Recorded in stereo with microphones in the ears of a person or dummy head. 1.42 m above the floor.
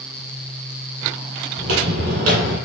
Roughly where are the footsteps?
Right.